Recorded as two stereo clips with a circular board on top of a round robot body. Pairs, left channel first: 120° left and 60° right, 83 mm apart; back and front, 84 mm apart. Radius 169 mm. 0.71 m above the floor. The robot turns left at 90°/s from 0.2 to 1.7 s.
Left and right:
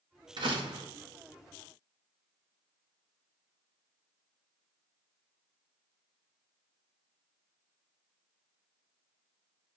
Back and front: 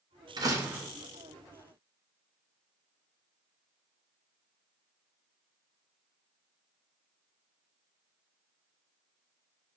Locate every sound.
0.4 s a door slam: 40° right, 0.9 m; by 0.9 s 85° right, 0.9 m